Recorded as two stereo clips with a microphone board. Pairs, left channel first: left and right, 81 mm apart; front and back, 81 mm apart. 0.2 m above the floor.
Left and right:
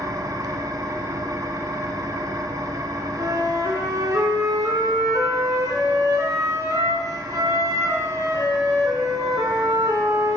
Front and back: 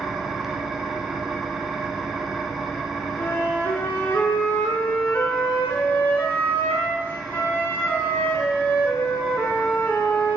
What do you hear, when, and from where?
0.0 s an engine running: 95° right, 0.9 m
3.2 s a flute: 55° right, 1.6 m